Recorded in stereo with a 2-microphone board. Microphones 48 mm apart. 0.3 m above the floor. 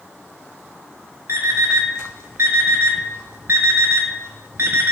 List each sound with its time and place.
1.3 s an alarm clock: 65° right (ahead or behind), 2 m